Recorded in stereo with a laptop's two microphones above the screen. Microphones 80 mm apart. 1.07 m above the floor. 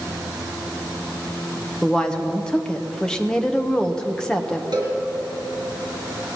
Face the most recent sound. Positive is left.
turn(degrees=-55)  # may be behind; listen again after turning